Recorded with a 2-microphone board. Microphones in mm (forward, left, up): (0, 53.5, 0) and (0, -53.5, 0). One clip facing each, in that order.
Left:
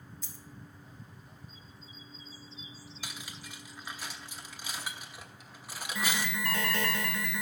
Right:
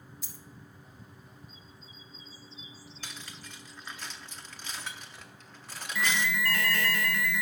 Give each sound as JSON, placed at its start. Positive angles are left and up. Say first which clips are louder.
{"t": 0.2, "sound": "a dropped coin", "louder": "even", "side_deg": -10, "distance_m": 1.2}
{"t": 3.0, "sound": "cutlery clinking", "louder": "left 1 dB", "side_deg": 10, "distance_m": 0.8}
{"t": 6.0, "sound": "an alarm", "louder": "right 4 dB", "side_deg": 20, "distance_m": 1.0}